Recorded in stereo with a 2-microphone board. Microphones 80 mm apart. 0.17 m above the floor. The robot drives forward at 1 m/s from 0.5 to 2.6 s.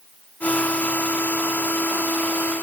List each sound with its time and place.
Only background noise.